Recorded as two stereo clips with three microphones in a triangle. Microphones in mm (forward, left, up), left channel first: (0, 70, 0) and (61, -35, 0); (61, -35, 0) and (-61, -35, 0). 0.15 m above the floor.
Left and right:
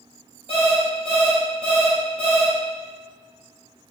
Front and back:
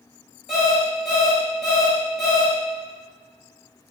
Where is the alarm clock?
95° left, 1.7 m.